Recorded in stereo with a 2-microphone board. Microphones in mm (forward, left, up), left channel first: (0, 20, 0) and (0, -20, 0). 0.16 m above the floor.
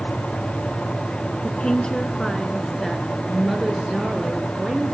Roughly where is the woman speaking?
Left.